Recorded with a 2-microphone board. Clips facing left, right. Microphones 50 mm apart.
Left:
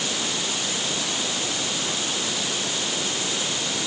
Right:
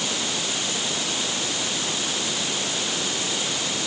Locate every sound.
Only background noise.